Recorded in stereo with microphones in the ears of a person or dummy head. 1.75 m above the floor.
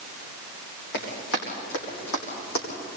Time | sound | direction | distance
0.9 | running footsteps | 70° left (ahead or behind) | 7 m